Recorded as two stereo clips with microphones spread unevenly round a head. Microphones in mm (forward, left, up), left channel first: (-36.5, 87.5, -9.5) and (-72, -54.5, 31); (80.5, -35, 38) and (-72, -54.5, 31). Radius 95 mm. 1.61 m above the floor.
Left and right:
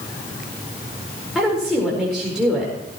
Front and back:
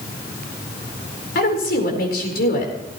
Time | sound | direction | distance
1.4 | a woman speaking | 15° right | 4.5 m